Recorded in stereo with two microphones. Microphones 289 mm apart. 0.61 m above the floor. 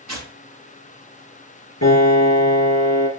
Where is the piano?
60° left (ahead or behind), 4.5 m.